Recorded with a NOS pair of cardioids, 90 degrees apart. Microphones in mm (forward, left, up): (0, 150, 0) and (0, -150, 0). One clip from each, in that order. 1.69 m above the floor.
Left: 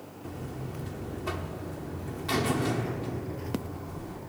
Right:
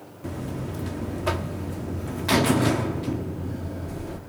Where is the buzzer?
45° right, 0.7 m.